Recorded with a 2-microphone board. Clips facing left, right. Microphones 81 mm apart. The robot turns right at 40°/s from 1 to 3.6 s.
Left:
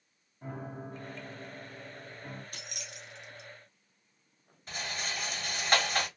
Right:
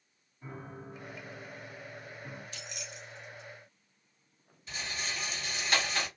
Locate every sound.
0.4 s a piano: 60° left, 1.3 m; by 2.4 s 115° left, 1.3 m
2.5 s keys jangling: 50° left (ahead or behind), 0.5 m; by 3.5 s 70° left (ahead or behind), 0.5 m
4.7 s a rattle: 40° left (ahead or behind), 1.4 m